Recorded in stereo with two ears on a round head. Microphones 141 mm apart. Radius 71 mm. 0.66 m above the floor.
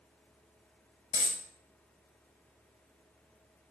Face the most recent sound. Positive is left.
turn(degrees=45)  # may be behind; listen again after turning